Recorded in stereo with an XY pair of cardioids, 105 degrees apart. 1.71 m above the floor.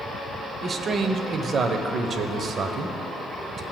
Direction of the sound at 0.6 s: 45° right.